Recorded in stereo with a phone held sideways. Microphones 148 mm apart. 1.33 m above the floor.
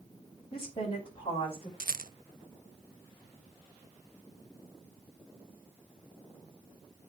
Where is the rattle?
85° right, 0.5 m.